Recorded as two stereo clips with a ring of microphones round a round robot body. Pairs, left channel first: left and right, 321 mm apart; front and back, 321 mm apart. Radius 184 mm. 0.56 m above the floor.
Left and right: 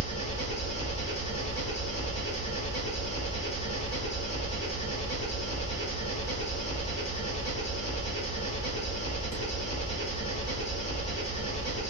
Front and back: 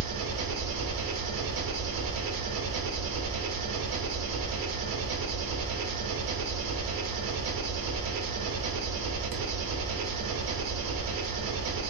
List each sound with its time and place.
0.0 s an engine running: 160° left, 1.2 m